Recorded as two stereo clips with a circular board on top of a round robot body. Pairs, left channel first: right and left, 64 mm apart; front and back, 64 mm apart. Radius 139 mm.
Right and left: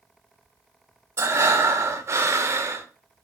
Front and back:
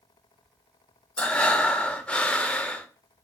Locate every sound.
1.2 s breathing: 70° left, 0.5 m